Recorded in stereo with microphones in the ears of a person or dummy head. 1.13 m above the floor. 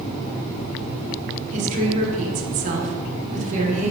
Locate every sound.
1.5 s a woman speaking: 35° right (ahead or behind), 0.8 m